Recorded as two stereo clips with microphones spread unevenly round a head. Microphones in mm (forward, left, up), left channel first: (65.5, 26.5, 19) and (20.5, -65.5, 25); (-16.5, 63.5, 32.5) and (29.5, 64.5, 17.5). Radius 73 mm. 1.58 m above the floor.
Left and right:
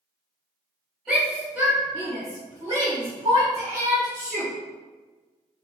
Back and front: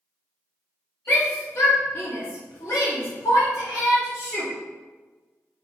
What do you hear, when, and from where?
1.1 s a shout: 160° left, 2.5 m; by 4.5 s 155° right, 3 m